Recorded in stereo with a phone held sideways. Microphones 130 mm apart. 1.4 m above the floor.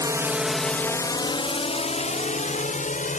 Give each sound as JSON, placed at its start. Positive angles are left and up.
{"t": 0.0, "sound": "a drone", "side_deg": -25}